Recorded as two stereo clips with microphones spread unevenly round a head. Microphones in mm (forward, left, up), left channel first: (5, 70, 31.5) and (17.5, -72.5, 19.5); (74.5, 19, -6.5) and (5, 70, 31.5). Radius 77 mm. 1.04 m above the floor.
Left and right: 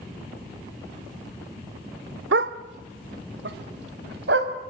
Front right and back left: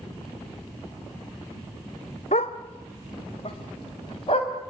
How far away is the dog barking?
About 1.3 m.